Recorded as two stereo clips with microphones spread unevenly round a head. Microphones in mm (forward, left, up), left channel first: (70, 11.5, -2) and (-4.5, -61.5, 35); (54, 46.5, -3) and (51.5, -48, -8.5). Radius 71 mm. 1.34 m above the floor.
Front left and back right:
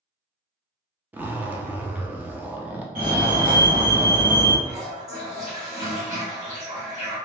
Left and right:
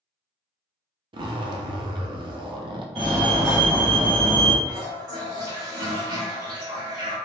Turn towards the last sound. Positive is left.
turn(degrees=-140)